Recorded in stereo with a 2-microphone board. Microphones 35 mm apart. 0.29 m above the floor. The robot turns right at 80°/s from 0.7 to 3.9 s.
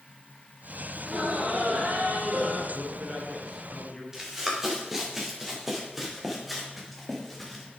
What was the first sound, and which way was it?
Laughter, 155° right.